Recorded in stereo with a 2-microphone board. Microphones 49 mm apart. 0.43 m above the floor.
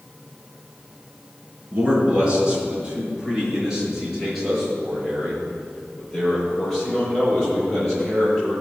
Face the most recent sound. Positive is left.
turn(degrees=5)  # may be behind; listen again after turning